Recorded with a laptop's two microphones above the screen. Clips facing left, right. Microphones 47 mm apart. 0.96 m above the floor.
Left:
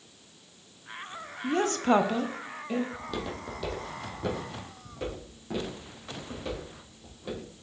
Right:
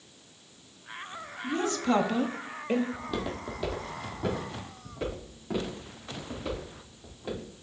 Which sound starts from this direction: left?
A woman speaking, at 1.4 s.